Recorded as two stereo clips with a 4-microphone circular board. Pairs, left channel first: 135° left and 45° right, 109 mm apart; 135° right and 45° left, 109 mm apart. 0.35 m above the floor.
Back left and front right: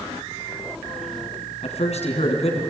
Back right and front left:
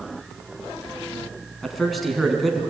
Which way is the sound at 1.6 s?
135° left.